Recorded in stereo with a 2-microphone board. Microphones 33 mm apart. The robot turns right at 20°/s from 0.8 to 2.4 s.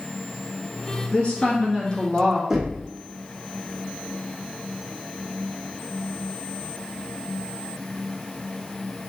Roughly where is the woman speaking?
Left.